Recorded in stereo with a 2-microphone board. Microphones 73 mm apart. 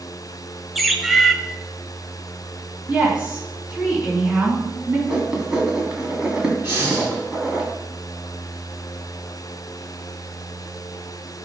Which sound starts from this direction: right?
Breathing, at 6.6 s.